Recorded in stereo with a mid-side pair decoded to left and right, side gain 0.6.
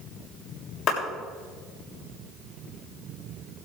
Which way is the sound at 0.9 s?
55° left.